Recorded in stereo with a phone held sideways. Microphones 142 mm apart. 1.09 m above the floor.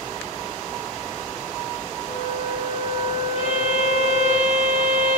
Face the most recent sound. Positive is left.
turn(degrees=45)  # may be behind; listen again after turning